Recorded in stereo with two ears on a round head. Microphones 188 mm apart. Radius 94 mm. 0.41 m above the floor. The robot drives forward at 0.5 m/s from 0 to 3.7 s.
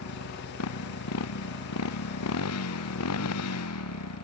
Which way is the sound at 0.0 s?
85° left.